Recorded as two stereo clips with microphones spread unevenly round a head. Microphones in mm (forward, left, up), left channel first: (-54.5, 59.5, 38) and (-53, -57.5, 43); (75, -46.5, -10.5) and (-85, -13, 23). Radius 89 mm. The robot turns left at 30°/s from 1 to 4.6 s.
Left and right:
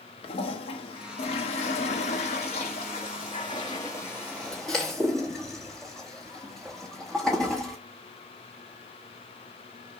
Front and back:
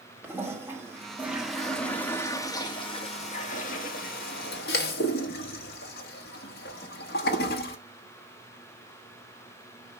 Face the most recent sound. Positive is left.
turn(degrees=0)